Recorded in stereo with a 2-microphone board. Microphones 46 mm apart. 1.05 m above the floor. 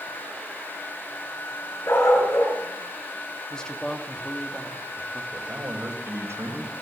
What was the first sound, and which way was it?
A dog barking, 80° left.